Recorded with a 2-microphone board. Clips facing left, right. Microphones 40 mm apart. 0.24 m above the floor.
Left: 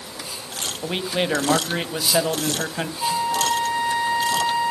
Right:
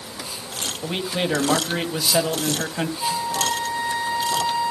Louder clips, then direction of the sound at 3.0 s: Left 4 dB; 30° left (ahead or behind).